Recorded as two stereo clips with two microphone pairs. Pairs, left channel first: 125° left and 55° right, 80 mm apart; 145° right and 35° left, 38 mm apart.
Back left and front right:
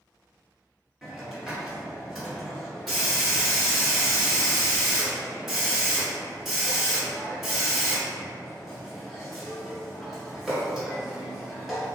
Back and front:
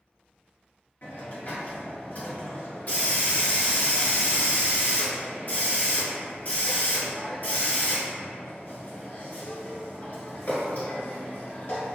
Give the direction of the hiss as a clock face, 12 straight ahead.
5 o'clock.